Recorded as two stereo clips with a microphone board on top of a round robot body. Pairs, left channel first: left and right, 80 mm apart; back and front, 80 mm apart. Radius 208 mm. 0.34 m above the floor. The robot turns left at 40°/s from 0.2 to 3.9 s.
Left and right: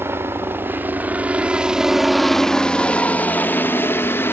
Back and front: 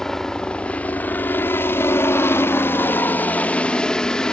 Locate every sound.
0.0 s a helicopter: 100° right; by 4.3 s 110° left